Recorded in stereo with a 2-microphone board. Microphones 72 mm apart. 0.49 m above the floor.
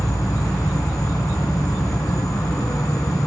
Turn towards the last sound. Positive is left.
turn(degrees=60)  # may be behind; listen again after turning